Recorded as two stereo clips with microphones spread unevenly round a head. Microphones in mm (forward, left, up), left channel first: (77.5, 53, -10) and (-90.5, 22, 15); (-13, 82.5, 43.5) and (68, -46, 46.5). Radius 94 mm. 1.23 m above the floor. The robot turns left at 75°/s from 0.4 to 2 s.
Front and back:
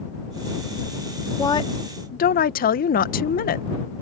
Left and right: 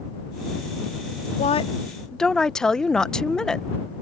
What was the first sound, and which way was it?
A woman speaking, 85° left.